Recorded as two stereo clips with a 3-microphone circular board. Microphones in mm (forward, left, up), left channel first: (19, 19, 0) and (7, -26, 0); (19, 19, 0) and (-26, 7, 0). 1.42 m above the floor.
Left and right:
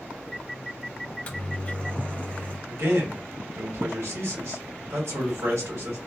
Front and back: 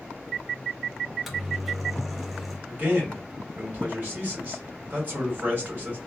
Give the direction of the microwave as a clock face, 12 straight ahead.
8 o'clock.